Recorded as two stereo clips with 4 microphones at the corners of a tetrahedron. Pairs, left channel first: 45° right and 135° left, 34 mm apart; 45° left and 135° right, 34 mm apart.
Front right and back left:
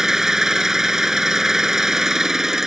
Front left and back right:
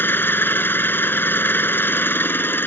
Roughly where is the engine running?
Ahead left.